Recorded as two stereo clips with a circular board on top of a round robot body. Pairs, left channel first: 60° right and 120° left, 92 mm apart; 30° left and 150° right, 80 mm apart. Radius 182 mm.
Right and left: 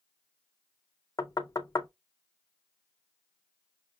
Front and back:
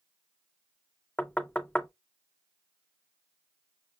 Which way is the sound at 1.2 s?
40° right.